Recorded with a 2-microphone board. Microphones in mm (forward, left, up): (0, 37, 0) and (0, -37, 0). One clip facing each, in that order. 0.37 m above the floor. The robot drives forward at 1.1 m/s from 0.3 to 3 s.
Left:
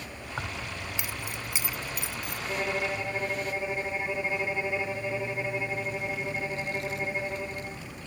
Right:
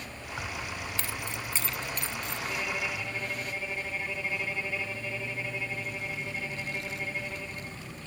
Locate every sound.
0.4 s keys jangling: 25° left (ahead or behind); by 2.4 s 10° left (ahead or behind)
2.5 s a violin: 30° left (ahead or behind)